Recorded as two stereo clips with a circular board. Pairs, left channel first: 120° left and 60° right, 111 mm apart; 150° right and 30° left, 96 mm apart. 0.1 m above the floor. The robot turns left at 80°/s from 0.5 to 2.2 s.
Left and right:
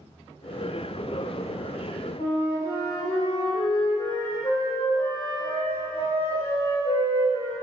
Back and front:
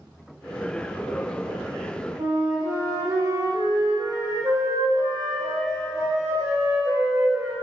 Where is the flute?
85° left, 3.5 m.